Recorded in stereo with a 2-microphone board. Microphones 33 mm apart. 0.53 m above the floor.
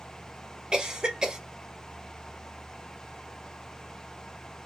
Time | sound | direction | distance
0.7 | a cough | 25° right (ahead or behind) | 1.0 m